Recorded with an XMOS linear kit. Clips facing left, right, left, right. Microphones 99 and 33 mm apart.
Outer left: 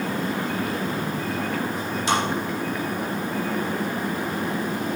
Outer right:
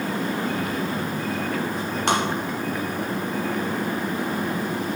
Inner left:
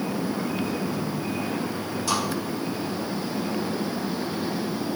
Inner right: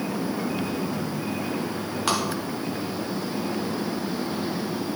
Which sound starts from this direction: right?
Tapping, at 2.1 s.